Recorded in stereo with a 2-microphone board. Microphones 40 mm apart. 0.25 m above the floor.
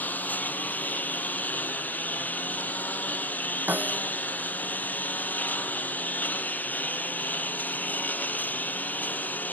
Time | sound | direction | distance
0.0 | a lawn mower | 45° left (ahead or behind) | ?
3.7 | a snare drum | 50° right (ahead or behind) | ?